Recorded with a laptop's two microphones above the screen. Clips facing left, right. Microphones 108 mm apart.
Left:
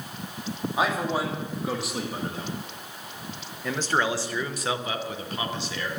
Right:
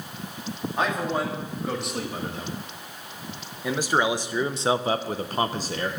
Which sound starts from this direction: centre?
A man speaking, at 0.8 s.